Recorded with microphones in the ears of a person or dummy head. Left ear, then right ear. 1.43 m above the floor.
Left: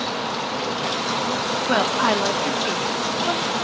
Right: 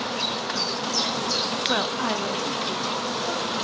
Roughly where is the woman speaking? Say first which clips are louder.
Left 5 dB; centre.